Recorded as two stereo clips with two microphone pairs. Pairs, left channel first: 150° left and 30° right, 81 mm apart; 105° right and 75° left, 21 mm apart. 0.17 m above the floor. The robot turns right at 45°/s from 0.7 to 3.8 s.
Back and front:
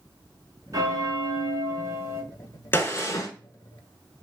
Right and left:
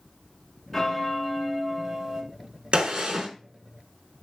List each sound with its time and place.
0.7 s a bell: 50° right, 0.7 m; by 2.2 s 15° left, 0.7 m
2.7 s a gunshot: 95° left, 0.5 m; by 3.3 s 120° left, 0.5 m